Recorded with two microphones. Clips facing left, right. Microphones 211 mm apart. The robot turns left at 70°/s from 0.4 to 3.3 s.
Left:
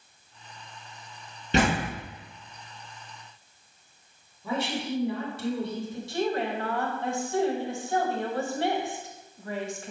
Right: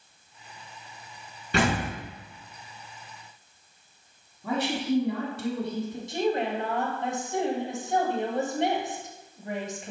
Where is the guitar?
I don't hear a guitar.